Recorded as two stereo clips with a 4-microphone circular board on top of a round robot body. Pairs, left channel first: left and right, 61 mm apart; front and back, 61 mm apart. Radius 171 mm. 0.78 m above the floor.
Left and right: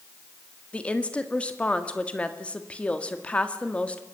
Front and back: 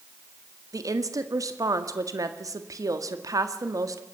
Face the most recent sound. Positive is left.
turn(degrees=160)